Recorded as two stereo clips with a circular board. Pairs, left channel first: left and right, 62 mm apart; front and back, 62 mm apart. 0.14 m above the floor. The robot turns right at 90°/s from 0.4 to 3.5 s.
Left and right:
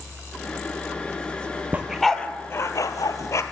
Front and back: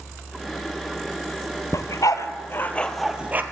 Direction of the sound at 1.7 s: 25° right.